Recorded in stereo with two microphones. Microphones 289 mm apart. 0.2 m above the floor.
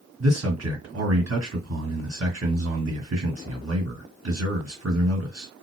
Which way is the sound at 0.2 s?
55° right (ahead or behind).